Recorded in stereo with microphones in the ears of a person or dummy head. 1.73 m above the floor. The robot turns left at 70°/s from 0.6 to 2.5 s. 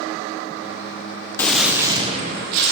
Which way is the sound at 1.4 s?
15° left.